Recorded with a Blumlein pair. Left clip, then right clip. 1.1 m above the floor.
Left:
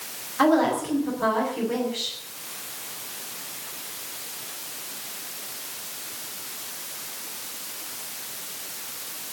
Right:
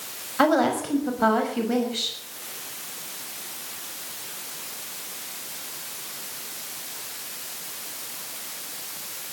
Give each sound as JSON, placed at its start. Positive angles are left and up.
{"t": 0.4, "sound": "a woman speaking", "azimuth_deg": -15, "distance_m": 6.0}